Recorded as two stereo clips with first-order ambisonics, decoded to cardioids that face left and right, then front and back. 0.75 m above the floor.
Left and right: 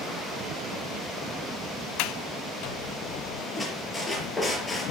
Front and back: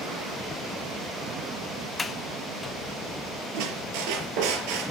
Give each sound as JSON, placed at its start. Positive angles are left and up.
{"t": 2.0, "sound": "a sliding door", "azimuth_deg": 80, "distance_m": 0.8}
{"t": 3.5, "sound": "a squeak", "azimuth_deg": 175, "distance_m": 5.0}